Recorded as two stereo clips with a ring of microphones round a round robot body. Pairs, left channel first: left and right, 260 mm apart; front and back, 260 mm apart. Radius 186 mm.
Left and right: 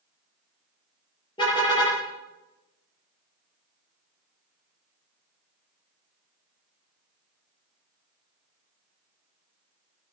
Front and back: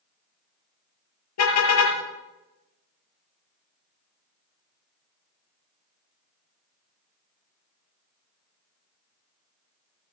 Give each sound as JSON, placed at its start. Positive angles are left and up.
{"t": 1.4, "sound": "a car horn", "azimuth_deg": 10, "distance_m": 5.5}